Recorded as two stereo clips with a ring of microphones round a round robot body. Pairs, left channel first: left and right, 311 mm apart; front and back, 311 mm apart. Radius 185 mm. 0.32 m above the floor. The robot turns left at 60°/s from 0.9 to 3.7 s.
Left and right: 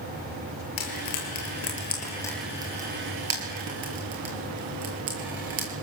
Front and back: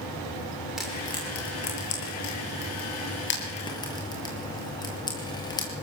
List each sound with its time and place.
0.8 s frying: 90° left, 8.5 m; by 5.7 s 75° right, 8.5 m